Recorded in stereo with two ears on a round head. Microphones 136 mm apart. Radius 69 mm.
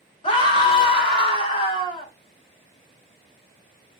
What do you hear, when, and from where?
0.2 s a scream: 40° left (ahead or behind), 3.5 m